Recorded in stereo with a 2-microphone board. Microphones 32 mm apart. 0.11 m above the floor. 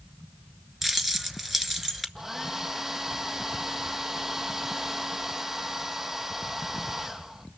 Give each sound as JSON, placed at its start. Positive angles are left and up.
{"t": 0.8, "sound": "keys jangling", "side_deg": -5, "distance_m": 1.0}
{"t": 2.1, "sound": "a hair dryer", "side_deg": -10, "distance_m": 1.3}